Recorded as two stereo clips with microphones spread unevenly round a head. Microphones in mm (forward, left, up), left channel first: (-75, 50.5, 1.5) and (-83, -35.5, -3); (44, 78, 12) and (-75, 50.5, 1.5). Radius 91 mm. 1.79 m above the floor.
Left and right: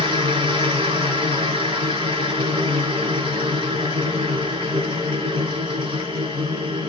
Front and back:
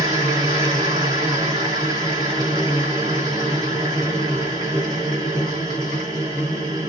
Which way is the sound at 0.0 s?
105° right.